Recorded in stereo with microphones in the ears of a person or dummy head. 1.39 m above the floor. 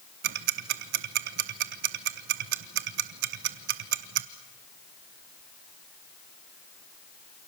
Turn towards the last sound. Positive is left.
turn(degrees=-55)  # may be behind; listen again after turning